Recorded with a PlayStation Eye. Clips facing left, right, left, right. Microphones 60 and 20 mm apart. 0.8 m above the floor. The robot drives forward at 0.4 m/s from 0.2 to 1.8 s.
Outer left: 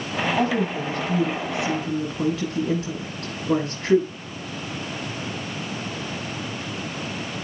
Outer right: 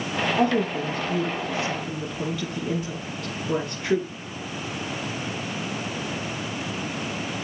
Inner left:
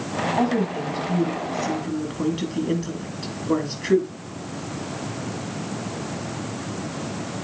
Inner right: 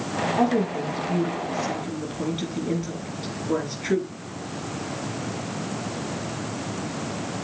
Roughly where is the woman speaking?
Left.